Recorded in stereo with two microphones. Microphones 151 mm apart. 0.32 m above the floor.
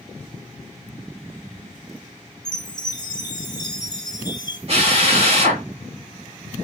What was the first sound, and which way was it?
A chime, 30° left (ahead or behind).